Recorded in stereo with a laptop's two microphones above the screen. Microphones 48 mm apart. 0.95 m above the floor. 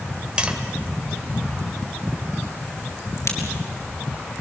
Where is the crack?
80° left, 5 m.